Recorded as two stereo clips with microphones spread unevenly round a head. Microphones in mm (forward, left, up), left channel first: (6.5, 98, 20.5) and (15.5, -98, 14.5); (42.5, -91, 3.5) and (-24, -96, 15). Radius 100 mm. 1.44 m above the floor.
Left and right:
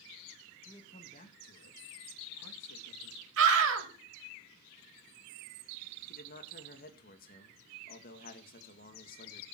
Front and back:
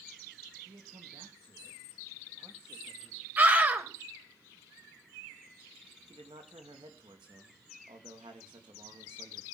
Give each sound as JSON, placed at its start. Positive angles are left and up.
{"t": 0.7, "sound": "a man speaking", "azimuth_deg": 165, "distance_m": 2.5}
{"t": 3.4, "sound": "a scream", "azimuth_deg": -115, "distance_m": 5.5}
{"t": 6.1, "sound": "a man speaking", "azimuth_deg": 140, "distance_m": 2.0}